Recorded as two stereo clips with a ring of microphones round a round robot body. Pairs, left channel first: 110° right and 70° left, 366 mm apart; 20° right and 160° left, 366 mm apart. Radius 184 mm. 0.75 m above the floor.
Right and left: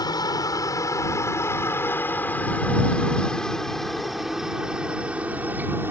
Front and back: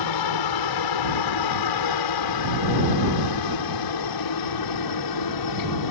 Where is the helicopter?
35° right; by 5.9 s 15° right.